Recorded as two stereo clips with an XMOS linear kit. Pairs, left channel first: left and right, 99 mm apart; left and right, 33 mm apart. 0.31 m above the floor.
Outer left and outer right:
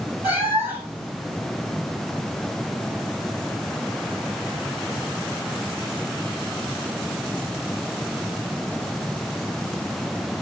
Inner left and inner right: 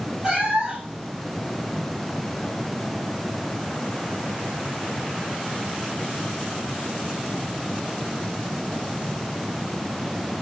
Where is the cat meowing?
20° right (ahead or behind), 3 m.